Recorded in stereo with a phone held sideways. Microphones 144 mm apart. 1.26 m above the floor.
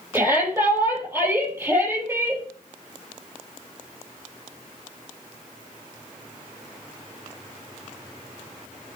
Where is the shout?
20° right (ahead or behind), 6.5 m.